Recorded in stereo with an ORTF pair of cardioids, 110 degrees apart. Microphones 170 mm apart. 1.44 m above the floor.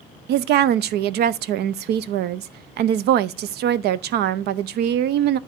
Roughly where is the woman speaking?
Right.